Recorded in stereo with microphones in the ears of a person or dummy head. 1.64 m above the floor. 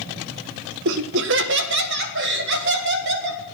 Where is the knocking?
No knocking in this recording.